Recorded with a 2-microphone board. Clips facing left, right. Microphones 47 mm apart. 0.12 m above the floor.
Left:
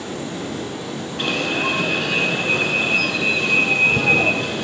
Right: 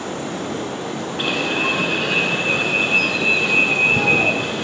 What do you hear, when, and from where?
0.0 s running water: 45° right (ahead or behind), 1.2 m
1.2 s an alarm: 10° right (ahead or behind), 0.9 m